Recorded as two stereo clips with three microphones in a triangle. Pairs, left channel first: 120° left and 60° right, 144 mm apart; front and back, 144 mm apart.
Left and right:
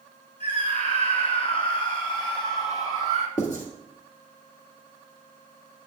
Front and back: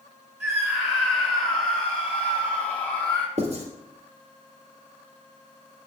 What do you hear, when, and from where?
0.4 s a scream: 90° left, 3 m; by 3.3 s 65° left, 1.8 m
3.4 s writing: 145° left, 2 m